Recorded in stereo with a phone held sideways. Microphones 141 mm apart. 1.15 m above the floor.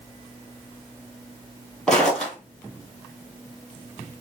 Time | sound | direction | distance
1.9 | footsteps | 5° left (ahead or behind) | 1.4 m